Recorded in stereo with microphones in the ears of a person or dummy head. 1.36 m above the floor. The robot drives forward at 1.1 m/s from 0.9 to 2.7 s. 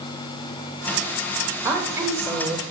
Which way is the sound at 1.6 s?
10° right (ahead or behind).